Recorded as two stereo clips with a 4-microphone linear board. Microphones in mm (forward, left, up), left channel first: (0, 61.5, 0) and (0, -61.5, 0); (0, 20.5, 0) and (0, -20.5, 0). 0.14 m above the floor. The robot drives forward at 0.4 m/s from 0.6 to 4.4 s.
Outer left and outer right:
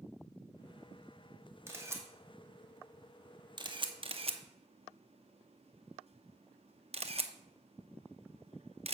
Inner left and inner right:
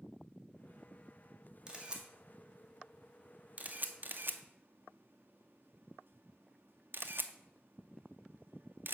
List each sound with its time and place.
1.7 s a camera shutter: 20° right (ahead or behind), 1.5 m; by 8.9 s 55° right (ahead or behind), 0.6 m